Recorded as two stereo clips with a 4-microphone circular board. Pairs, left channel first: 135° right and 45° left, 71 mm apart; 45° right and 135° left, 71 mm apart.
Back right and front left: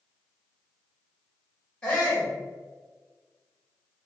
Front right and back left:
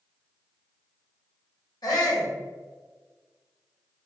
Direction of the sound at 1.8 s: 60° right.